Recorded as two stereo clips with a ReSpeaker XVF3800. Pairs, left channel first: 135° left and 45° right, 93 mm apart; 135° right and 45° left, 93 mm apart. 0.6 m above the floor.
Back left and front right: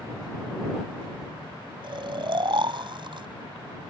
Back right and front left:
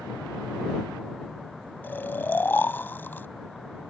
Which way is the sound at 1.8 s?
70° right.